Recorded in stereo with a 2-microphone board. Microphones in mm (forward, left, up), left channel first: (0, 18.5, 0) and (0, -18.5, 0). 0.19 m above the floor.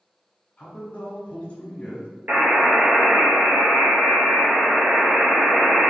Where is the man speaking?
30° left (ahead or behind), 1.1 m.